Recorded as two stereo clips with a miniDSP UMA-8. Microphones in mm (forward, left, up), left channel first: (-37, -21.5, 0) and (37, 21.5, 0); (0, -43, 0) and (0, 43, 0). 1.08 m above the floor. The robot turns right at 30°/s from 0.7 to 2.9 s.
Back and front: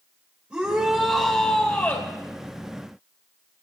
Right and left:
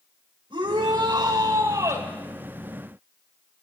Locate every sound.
0.5 s a shout: 105° left, 4 m; by 2.1 s 150° left, 4 m